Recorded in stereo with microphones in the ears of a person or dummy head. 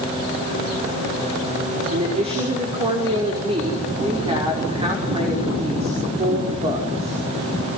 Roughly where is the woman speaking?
Right.